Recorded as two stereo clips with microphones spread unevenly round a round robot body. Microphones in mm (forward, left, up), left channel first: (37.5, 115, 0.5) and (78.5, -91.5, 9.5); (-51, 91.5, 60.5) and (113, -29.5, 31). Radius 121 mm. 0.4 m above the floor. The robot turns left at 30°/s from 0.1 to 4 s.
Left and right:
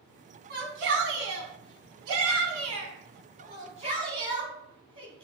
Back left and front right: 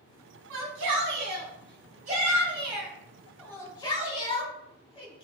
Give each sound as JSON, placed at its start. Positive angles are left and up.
{"t": 0.5, "sound": "a shout", "azimuth_deg": -45, "distance_m": 3.0}